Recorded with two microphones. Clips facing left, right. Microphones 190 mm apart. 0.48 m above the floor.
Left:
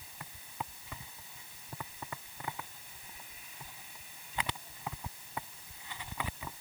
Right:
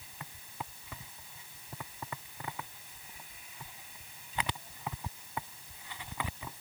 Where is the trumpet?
No trumpet in this recording.